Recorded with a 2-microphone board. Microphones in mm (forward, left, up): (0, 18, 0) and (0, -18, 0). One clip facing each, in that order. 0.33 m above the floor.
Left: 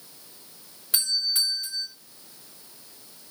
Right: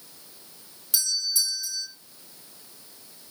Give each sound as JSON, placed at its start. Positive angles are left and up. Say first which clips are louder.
{"t": 0.9, "sound": "a doorbell", "louder": "left 2 dB", "side_deg": 35, "distance_m": 1.8}